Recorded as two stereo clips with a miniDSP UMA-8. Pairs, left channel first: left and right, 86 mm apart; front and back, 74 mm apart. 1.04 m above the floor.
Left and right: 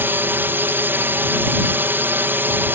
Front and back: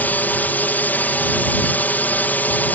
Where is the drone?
45° right.